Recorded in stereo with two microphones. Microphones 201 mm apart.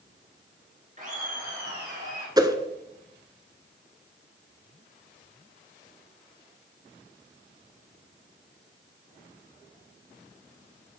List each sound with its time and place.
1.0 s laughter: 40° right (ahead or behind), 2 m; by 2.3 s 60° right (ahead or behind), 3.5 m
2.4 s a whoosh: 20° right (ahead or behind), 0.9 m